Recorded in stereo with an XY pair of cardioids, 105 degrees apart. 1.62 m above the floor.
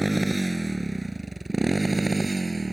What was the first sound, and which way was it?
A motorcycle, 15° right.